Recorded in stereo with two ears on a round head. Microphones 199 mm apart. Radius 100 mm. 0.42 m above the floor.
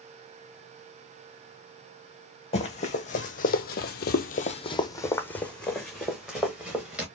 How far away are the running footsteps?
About 1.2 m.